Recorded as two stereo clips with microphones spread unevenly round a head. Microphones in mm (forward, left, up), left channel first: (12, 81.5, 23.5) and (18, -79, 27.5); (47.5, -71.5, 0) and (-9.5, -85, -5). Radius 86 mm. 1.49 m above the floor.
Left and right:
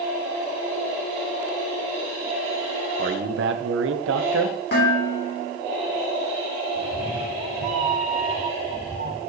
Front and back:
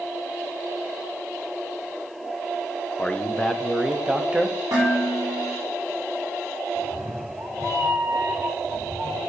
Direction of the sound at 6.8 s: 130° right.